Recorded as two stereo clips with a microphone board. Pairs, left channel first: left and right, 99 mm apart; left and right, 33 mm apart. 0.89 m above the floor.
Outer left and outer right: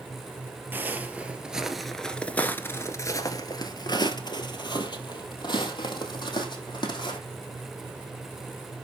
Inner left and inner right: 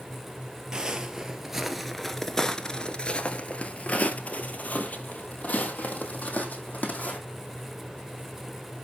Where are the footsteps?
20° right (ahead or behind), 1.4 m; by 7.2 s 50° left (ahead or behind), 3 m.